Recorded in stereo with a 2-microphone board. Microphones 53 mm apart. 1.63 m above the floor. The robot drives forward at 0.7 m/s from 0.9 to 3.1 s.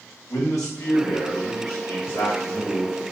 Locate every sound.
0.3 s a man speaking: 70° left (ahead or behind), 1.2 m; by 3.0 s 40° left (ahead or behind), 1.8 m